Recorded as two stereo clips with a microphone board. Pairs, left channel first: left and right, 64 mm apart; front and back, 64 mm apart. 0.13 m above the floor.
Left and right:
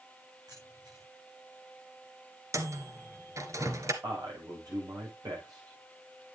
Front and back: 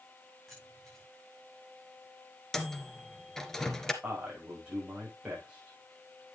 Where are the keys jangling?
85° right, 9 m.